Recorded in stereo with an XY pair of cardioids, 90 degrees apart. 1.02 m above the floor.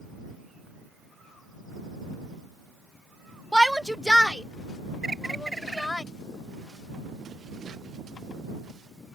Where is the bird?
20° right.